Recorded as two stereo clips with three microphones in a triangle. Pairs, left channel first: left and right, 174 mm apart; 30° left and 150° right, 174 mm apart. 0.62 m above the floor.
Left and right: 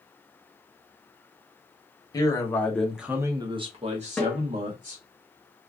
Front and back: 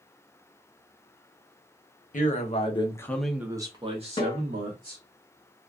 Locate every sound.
2.1 s a man speaking: 30° left, 0.8 m; by 5.0 s 125° right, 1.2 m
4.2 s a snare drum: 5° left, 1.0 m